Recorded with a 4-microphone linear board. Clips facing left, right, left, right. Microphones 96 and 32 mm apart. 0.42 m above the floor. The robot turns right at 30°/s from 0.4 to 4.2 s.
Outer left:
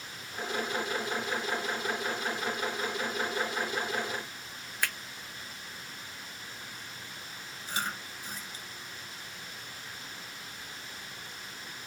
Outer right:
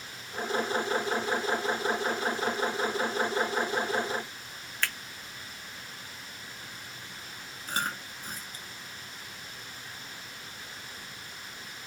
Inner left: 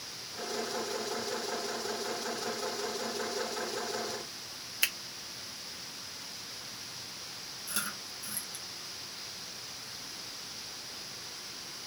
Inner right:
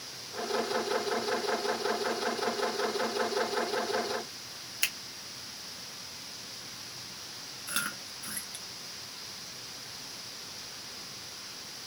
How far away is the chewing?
About 1.1 m.